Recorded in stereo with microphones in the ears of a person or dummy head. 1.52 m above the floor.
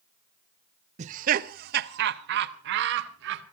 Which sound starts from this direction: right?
Laughter, at 1.0 s.